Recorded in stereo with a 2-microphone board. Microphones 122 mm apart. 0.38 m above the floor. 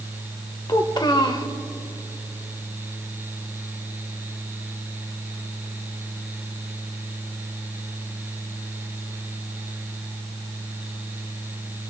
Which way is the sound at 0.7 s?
35° left (ahead or behind).